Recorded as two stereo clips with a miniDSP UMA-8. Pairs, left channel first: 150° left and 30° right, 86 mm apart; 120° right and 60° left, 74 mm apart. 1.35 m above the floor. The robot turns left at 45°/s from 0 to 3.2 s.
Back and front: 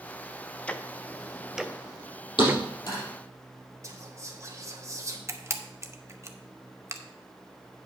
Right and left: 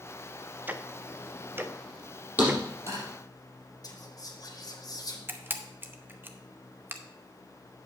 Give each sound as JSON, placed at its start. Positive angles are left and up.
{"t": 0.7, "sound": "ticking", "azimuth_deg": 90, "distance_m": 0.5}
{"t": 2.4, "sound": "a thud", "azimuth_deg": 125, "distance_m": 4.0}
{"t": 3.8, "sound": "whispering", "azimuth_deg": -85, "distance_m": 1.5}
{"t": 5.3, "sound": "a camera shutter", "azimuth_deg": 10, "distance_m": 0.7}